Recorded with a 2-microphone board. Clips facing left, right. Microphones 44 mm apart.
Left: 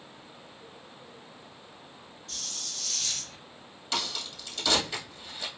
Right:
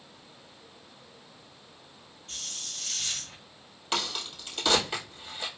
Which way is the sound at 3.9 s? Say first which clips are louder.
Right 2 dB; 35° right (ahead or behind).